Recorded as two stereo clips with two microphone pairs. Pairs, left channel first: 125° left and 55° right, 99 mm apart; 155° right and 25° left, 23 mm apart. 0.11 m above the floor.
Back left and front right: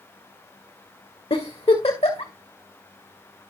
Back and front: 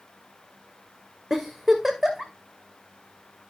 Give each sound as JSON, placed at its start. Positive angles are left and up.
{"t": 1.3, "sound": "a giggle", "azimuth_deg": 120, "distance_m": 2.0}